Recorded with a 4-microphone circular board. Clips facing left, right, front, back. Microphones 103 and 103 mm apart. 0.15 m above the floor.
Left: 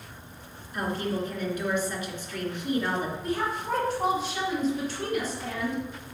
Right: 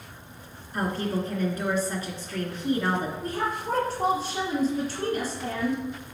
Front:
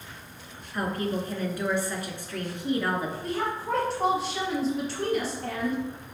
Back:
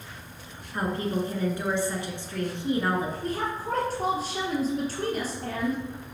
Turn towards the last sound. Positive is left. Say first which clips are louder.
# even, even
turn(degrees=-140)